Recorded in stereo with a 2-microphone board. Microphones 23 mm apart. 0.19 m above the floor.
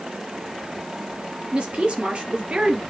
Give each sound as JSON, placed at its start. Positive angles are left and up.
{"t": 1.5, "sound": "a woman speaking", "side_deg": -55, "distance_m": 3.5}